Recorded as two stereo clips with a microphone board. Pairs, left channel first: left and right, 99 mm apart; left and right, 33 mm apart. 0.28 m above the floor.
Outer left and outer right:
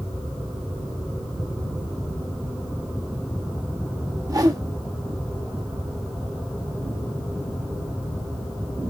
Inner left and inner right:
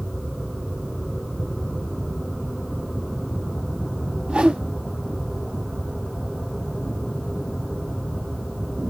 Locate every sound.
4.3 s a whoosh: 35° right (ahead or behind), 0.5 m